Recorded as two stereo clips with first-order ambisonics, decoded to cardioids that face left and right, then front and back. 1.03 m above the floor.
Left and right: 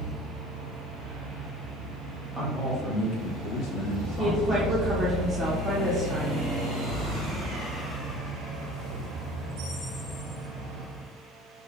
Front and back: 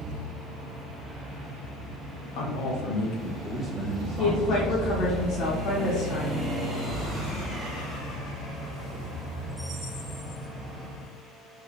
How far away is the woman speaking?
About 0.9 m.